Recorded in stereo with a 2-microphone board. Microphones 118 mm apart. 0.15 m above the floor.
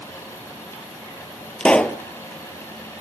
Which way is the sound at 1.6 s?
10° left (ahead or behind).